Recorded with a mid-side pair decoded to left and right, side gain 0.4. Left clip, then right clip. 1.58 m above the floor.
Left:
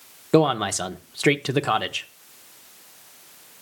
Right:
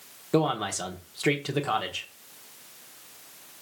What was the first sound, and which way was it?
A man speaking, 50° left.